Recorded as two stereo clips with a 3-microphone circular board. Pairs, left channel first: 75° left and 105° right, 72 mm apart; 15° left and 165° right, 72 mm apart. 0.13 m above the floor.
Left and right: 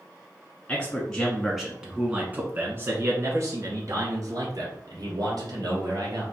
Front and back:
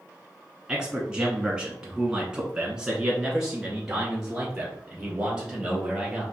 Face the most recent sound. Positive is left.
turn(degrees=-80)